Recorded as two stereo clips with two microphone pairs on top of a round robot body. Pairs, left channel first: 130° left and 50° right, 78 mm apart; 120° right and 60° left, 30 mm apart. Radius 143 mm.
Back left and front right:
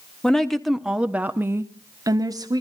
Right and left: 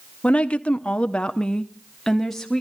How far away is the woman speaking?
About 1.6 m.